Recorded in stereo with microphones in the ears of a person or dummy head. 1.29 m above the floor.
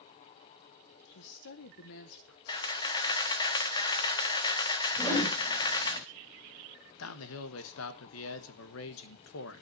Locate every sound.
1.1 s a woman speaking: 70° left (ahead or behind), 1.0 m
2.5 s a camera shutter: 25° left (ahead or behind), 1.2 m
5.0 s a whoosh: 15° left (ahead or behind), 4.5 m
7.0 s a man speaking: 80° left, 1.3 m